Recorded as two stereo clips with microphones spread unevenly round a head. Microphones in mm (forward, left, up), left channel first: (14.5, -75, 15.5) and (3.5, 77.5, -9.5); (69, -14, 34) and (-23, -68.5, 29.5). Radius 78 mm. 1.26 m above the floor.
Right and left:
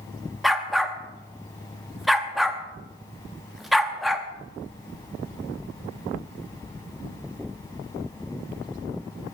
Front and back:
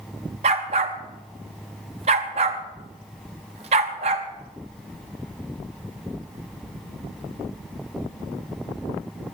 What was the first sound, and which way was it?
A dog barking, 165° right.